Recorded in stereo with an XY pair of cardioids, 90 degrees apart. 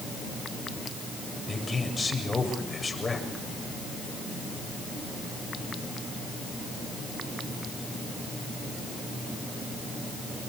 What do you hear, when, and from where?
1.5 s a man speaking: 25° left, 7.5 m